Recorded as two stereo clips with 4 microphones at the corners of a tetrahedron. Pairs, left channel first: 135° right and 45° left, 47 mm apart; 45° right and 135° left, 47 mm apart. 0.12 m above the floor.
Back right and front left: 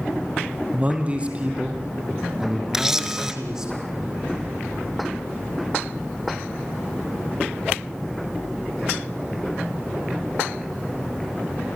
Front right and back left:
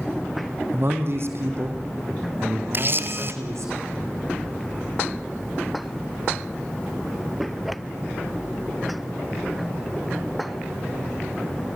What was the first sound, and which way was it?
A man speaking, 105° left.